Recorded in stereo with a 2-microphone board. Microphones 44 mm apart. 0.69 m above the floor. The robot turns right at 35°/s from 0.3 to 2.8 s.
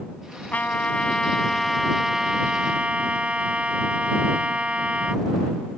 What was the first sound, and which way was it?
A trumpet, 135° left.